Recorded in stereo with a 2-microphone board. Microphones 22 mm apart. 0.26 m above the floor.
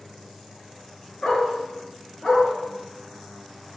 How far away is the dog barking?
About 0.8 m.